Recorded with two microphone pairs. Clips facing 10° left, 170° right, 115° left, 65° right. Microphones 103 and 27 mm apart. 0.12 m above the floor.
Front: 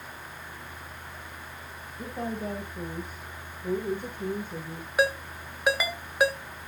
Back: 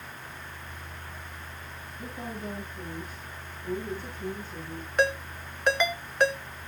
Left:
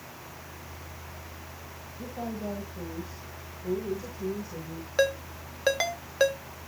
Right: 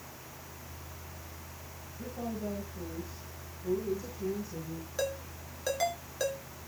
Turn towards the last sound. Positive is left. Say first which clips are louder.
# even, left 10 dB
turn(degrees=90)